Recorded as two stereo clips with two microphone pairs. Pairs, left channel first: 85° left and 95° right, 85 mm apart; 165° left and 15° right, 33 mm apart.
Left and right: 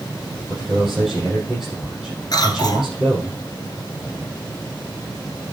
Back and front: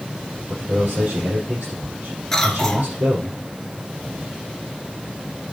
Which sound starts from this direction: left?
A cough, at 2.3 s.